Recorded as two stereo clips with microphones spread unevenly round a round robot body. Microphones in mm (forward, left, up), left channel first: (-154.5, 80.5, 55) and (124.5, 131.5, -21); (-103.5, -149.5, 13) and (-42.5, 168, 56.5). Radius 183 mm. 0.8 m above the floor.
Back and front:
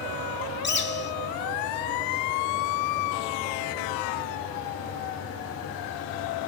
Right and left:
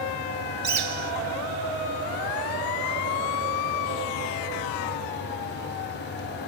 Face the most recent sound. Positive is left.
turn(degrees=140)